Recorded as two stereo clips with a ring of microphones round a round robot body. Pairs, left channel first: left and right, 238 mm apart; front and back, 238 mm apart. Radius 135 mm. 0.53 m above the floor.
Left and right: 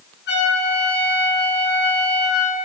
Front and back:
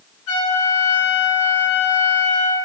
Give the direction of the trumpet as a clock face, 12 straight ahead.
11 o'clock.